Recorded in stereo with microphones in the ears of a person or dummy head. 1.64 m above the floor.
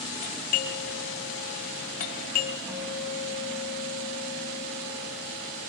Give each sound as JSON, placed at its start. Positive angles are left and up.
{"t": 0.2, "sound": "a doorbell", "side_deg": 45, "distance_m": 1.8}
{"t": 2.7, "sound": "a guitar", "side_deg": -10, "distance_m": 5.5}